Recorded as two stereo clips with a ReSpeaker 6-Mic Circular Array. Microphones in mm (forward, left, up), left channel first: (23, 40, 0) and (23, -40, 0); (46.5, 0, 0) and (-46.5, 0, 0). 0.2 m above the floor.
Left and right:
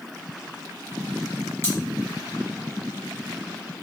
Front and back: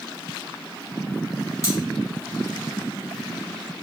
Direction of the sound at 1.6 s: 40° left.